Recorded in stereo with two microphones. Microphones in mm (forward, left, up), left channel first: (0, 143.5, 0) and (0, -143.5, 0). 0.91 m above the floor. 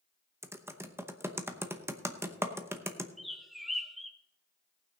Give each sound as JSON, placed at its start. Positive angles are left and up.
{"t": 0.4, "sound": "typing on a keyboard", "side_deg": -10, "distance_m": 0.8}
{"t": 3.2, "sound": "a bird", "side_deg": 0, "distance_m": 0.9}